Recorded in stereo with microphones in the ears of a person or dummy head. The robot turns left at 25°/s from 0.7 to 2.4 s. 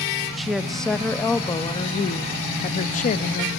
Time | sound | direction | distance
0.4 | a woman speaking | 175° right | 0.9 m